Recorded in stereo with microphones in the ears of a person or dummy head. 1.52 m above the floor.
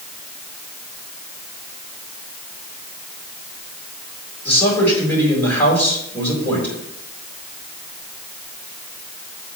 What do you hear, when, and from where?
4.5 s a man speaking: 5° left (ahead or behind), 4.5 m